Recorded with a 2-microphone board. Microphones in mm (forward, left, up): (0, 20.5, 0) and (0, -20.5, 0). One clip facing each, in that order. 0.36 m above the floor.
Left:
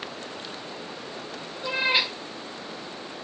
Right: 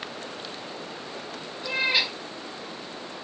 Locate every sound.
1.6 s a cat meowing: 15° left (ahead or behind), 0.9 m